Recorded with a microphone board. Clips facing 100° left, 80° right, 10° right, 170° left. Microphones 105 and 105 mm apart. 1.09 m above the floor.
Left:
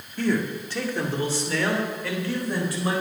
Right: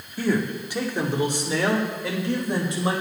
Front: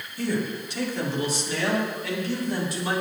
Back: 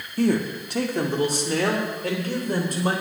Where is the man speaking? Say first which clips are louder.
Right 1 dB, back 5 dB; 160° right, 1.9 m; by 3.0 s 145° right, 4.5 m.